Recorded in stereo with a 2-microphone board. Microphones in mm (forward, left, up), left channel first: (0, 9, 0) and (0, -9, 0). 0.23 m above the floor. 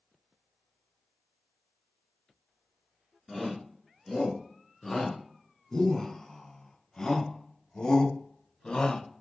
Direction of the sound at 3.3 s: 10° left (ahead or behind).